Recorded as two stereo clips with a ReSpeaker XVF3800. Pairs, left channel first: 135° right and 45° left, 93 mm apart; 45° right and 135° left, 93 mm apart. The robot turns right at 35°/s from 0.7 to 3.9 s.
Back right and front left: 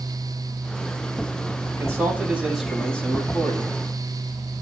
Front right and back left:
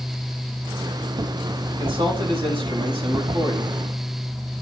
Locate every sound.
1.7 s a man speaking: 100° left, 6.5 m; by 3.8 s 175° left, 6.5 m